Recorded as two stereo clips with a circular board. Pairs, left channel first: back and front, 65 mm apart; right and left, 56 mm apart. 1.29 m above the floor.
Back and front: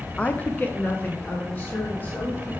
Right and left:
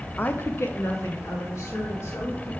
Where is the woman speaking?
125° right, 0.5 m; by 2.5 s 120° right, 3.5 m.